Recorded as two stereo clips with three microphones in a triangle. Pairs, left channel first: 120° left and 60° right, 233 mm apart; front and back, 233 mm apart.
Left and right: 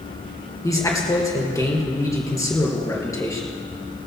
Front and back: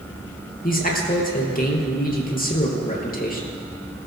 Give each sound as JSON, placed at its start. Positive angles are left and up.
{"t": 0.6, "sound": "a man speaking", "azimuth_deg": 45, "distance_m": 3.0}